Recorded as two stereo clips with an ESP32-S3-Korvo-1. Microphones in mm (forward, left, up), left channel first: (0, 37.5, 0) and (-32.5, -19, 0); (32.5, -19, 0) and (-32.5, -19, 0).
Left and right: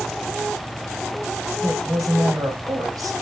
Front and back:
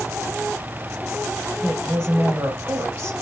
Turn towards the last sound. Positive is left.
turn(degrees=-145)